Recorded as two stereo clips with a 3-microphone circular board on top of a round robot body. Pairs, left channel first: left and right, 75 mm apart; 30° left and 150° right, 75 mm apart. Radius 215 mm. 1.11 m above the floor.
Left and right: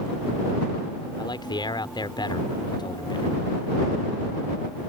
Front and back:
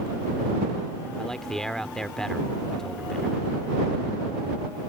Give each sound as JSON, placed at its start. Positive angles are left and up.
{"t": 1.2, "sound": "a man speaking", "azimuth_deg": 115}